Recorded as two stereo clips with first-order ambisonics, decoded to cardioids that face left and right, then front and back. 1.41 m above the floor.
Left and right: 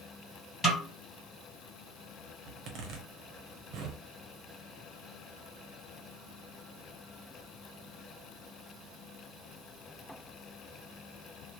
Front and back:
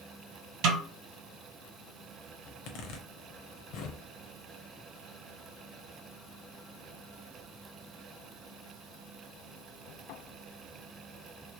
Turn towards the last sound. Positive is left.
turn(degrees=-40)